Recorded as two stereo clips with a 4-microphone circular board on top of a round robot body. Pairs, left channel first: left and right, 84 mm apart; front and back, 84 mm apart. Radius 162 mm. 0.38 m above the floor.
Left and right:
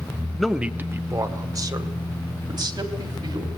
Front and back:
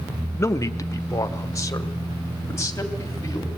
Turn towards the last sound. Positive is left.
turn(degrees=-55)